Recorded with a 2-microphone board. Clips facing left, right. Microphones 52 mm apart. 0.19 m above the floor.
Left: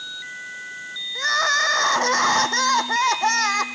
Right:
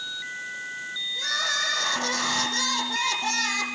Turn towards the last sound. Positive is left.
turn(degrees=55)  # may be behind; listen again after turning